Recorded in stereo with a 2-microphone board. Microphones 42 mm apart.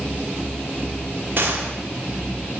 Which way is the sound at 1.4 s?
45° right (ahead or behind).